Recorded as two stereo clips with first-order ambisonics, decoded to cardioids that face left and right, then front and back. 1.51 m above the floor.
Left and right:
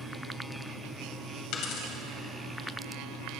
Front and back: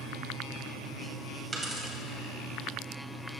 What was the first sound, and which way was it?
A dropped coin, 110° left.